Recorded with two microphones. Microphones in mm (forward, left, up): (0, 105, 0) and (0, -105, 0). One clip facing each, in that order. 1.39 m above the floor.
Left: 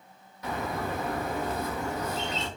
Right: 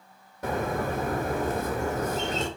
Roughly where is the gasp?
No gasp in this recording.